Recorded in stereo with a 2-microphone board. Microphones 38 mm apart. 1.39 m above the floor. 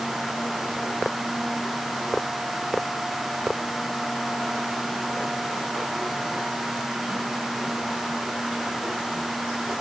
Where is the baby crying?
I don't hear a baby crying.